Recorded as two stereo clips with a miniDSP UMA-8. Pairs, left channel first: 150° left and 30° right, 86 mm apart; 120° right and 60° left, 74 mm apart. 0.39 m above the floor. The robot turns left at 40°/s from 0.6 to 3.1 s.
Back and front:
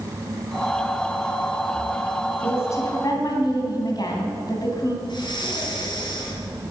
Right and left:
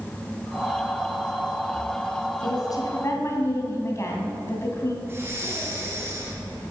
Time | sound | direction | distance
2.4 | a woman speaking | 145° right | 2.5 m
5.0 | breathing | 120° left | 3 m